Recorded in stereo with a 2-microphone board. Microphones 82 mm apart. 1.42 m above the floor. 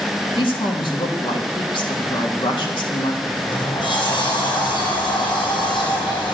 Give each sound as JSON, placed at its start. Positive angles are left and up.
{"t": 0.4, "sound": "a woman speaking", "side_deg": 85, "distance_m": 3.0}
{"t": 3.3, "sound": "a sliding door", "side_deg": 85, "distance_m": 5.5}